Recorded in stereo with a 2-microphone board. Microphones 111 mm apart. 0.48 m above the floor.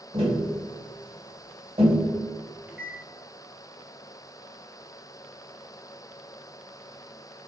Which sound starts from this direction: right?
Tapping, at 0.1 s.